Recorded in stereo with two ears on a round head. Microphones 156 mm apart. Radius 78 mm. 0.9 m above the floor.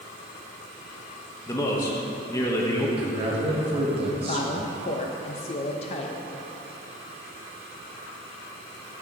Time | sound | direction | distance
1.5 | a man speaking | 20° left (ahead or behind) | 1.0 m
3.0 | a man speaking | 35° right (ahead or behind) | 1.5 m
4.3 | a woman speaking | 35° left (ahead or behind) | 0.6 m